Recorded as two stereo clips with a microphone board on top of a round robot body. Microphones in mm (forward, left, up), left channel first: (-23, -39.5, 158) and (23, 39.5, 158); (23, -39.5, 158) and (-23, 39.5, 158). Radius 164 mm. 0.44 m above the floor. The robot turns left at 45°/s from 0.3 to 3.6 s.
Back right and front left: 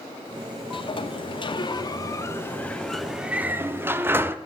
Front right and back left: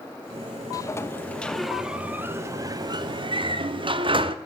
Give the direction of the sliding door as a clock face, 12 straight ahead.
4 o'clock.